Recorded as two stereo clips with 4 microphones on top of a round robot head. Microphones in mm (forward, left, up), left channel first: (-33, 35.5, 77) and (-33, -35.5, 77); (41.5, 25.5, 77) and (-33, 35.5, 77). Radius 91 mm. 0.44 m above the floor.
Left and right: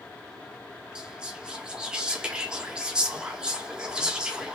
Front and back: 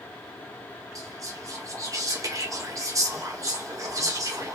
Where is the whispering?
165° right, 1.4 m.